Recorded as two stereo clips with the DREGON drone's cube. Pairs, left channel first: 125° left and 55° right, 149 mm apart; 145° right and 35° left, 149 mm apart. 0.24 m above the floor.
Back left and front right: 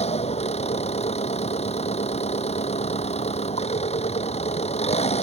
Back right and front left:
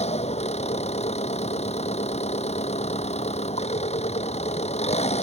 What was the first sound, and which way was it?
An engine running, 170° left.